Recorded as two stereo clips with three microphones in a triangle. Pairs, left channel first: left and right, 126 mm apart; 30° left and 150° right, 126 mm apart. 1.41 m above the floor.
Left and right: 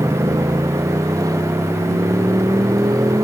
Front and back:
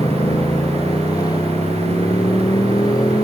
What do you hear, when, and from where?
0.0 s a motorcycle: 30° right